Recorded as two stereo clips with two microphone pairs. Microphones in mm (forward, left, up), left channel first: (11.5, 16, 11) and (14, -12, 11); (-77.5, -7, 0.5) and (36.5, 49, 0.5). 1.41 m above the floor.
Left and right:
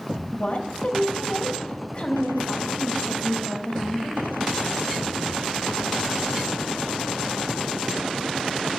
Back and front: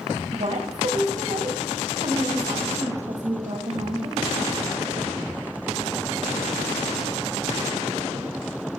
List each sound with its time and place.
0.3 s a woman speaking: 55° left, 2 m